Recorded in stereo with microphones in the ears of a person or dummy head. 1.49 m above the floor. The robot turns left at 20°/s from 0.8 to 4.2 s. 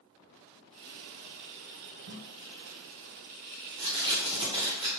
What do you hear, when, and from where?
2.1 s tape being pulled: 60° right (ahead or behind), 0.7 m; by 5.0 s 30° right (ahead or behind), 0.7 m